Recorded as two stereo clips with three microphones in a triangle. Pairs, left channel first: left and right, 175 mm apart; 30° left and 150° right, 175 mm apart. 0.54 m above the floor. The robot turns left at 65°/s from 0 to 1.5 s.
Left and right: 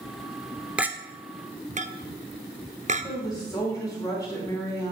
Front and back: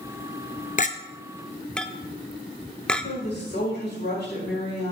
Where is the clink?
5° right, 0.5 m; by 3.0 s 55° right, 0.5 m.